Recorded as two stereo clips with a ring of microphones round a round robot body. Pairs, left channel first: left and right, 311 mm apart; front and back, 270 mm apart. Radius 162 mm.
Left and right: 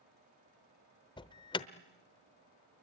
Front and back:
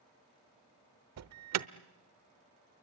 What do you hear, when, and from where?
1.2 s an alarm: 165° left, 1.0 m